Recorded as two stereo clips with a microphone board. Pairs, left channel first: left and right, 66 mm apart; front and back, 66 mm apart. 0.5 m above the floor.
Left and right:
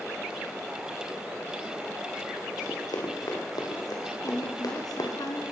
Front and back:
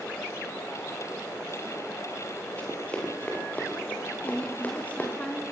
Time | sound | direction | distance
2.6 | running footsteps | 70° left | 8 m
4.2 | a woman speaking | 70° left | 5 m